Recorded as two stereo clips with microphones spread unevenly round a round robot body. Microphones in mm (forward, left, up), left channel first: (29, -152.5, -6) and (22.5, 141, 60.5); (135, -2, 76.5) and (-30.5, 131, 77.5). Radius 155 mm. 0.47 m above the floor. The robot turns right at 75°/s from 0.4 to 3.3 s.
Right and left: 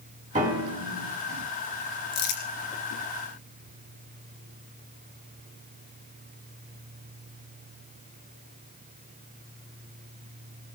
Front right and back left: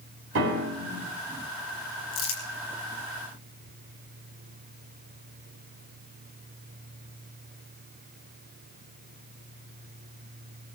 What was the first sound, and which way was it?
A piano, 160° left.